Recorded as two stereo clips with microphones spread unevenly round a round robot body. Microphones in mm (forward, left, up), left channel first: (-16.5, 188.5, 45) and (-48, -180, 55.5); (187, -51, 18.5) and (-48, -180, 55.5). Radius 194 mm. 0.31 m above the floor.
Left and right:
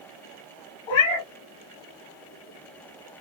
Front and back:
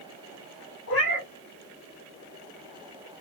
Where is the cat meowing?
80° left, 2.5 m.